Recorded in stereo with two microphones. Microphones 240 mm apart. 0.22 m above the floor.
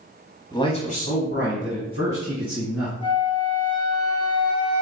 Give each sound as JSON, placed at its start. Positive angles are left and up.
{"t": 0.5, "sound": "a man speaking", "side_deg": 15, "distance_m": 1.0}
{"t": 3.0, "sound": "a flute", "side_deg": 20, "distance_m": 1.2}